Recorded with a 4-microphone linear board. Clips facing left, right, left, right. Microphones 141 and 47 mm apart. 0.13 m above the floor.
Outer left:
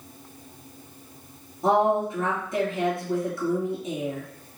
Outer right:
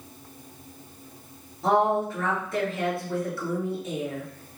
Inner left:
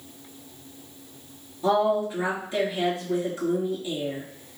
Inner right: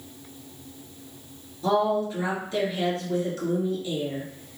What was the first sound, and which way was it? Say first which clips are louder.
A woman speaking: outer left 1 dB, inner left 1 dB; 20° left (ahead or behind).